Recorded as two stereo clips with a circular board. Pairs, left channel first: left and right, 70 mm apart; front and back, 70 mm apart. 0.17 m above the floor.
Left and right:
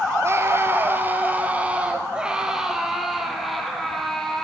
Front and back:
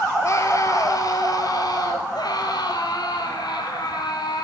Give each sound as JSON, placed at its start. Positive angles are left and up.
{"t": 0.2, "sound": "a scream", "azimuth_deg": -40, "distance_m": 4.0}